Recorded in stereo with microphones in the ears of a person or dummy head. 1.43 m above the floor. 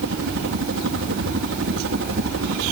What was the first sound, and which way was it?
A helicopter, 60° right (ahead or behind).